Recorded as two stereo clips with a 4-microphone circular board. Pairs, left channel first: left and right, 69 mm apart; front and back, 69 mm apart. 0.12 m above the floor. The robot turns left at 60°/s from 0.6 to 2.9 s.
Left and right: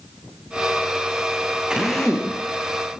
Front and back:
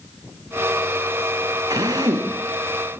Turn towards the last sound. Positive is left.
turn(degrees=120)